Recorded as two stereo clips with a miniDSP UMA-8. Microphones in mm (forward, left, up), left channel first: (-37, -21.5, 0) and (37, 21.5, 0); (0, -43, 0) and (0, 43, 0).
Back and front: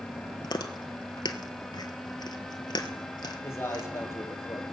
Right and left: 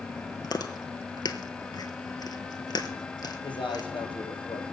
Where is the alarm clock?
I don't hear an alarm clock.